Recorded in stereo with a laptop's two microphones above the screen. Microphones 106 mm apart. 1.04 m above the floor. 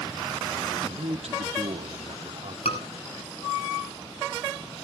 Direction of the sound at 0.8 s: 75° right (ahead or behind).